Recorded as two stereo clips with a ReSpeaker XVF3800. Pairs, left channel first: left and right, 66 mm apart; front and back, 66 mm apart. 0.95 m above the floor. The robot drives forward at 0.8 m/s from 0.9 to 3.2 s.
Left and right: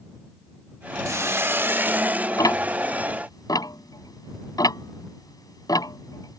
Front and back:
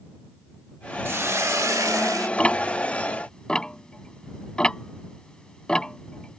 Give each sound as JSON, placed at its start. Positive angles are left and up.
{"t": 1.1, "sound": "a hiss", "azimuth_deg": -125}
{"t": 2.4, "sound": "ticking", "azimuth_deg": 70}